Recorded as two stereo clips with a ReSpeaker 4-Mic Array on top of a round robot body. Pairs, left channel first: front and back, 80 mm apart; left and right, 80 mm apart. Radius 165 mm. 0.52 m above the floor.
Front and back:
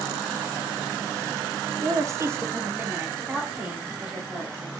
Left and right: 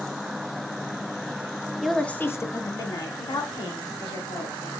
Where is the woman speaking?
175° right, 0.8 m; by 4.7 s 100° left, 2.5 m.